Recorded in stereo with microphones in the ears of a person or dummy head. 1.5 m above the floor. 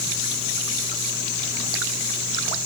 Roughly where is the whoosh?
No whoosh in this recording.